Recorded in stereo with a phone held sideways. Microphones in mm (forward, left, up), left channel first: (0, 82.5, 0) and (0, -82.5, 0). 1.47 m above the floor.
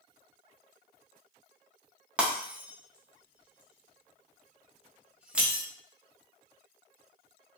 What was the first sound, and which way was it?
Breaking glass, 10° right (ahead or behind).